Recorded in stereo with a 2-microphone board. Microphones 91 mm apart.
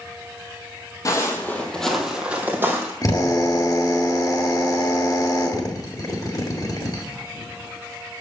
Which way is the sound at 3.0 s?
45° left (ahead or behind).